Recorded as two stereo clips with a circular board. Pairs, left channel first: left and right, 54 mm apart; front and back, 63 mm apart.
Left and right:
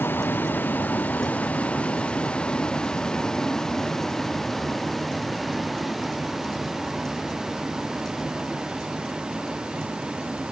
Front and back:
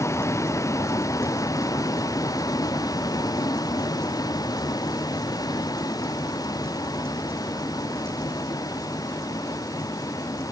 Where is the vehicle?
40° left; by 10.5 s 20° right.